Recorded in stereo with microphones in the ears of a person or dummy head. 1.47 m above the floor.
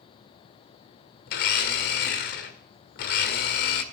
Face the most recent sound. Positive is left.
turn(degrees=55)  # may be behind; listen again after turning